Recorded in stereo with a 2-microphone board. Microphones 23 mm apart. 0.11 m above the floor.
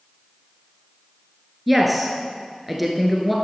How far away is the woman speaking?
About 1.3 m.